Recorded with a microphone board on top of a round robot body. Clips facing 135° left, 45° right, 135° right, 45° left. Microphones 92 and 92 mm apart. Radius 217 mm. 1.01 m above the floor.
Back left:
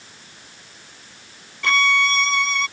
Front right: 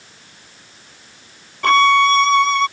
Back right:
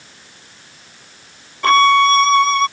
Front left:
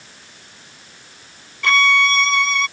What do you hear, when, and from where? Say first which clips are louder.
1.6 s a violin: front right 8 dB, back right 6 dB; 85° right